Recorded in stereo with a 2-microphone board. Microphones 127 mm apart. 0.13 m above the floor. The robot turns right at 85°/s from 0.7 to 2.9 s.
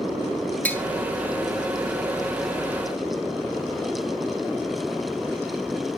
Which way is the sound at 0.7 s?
15° left (ahead or behind).